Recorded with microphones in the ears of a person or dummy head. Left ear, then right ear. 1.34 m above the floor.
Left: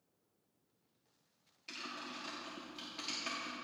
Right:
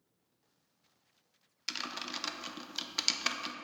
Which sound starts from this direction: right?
Typing on a keyboard, at 1.7 s.